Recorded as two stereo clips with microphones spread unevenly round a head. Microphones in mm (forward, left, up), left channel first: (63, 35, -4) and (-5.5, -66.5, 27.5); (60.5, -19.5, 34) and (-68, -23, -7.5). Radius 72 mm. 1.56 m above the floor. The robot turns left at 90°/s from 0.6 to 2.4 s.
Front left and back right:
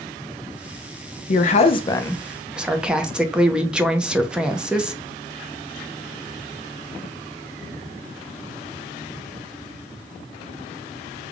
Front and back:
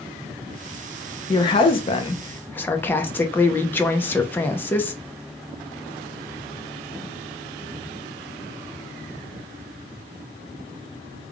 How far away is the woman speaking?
About 0.7 m.